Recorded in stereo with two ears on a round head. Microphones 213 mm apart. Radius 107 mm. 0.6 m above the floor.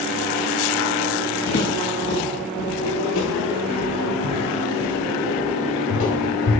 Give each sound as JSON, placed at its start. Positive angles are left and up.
{"t": 1.5, "sound": "footsteps", "side_deg": 45, "distance_m": 3.5}